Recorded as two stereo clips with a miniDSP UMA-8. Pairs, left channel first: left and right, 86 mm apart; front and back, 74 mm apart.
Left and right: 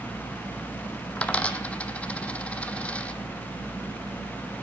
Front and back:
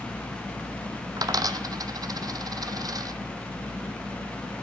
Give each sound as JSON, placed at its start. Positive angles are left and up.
{"t": 1.2, "sound": "a dropped coin", "azimuth_deg": 160, "distance_m": 0.7}